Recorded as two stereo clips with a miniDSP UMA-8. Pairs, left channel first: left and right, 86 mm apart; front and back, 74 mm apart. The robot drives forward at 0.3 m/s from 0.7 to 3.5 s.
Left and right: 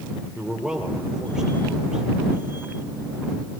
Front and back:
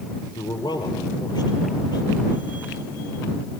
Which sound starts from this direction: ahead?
A man speaking, at 0.3 s.